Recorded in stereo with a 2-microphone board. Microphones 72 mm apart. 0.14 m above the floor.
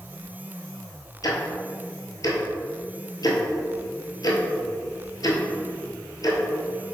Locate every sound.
1.2 s ticking: 60° left (ahead or behind), 0.8 m